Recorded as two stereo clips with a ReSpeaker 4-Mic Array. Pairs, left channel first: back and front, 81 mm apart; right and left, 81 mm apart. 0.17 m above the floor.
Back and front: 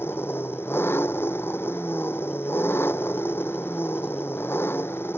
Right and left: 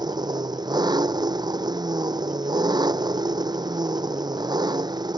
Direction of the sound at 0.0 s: 120° left.